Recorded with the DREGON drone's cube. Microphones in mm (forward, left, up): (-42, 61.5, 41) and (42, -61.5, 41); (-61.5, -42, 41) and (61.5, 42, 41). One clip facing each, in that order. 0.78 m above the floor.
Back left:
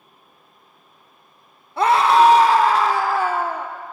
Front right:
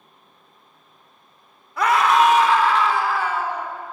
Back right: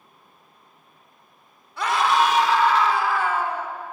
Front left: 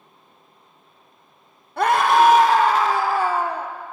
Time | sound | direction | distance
1.8 | a scream | 65° left | 3 m